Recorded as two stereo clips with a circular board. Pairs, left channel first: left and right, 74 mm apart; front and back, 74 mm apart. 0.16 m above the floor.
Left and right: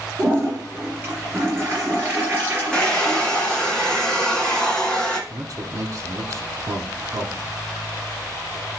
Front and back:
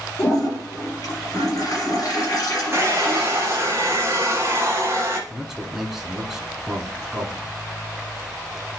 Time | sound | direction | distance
0.2 | a toilet flushing | 30° right | 3.5 m
2.7 | a hair dryer | 155° left | 1.4 m
5.3 | a man speaking | 95° right | 1.5 m